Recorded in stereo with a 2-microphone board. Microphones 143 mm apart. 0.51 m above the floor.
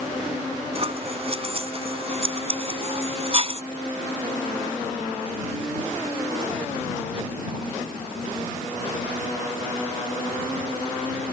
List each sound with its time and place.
0.8 s scissors: 45° right (ahead or behind)